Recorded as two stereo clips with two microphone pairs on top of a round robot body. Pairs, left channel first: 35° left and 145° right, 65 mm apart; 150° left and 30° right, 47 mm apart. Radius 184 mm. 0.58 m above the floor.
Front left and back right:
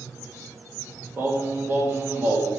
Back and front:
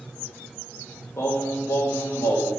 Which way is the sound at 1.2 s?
165° left.